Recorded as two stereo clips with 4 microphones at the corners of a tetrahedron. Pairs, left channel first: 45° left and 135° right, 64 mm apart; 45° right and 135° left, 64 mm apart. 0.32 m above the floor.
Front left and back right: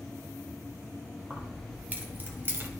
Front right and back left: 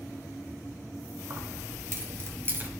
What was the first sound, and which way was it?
Keys jangling, 160° left.